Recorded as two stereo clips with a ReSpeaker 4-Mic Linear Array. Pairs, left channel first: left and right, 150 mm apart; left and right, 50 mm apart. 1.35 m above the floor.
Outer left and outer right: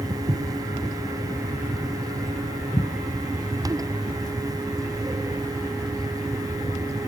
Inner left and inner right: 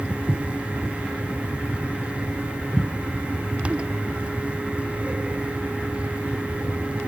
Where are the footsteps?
35° right (ahead or behind), 1.8 m; by 4.2 s 45° left (ahead or behind), 5.5 m.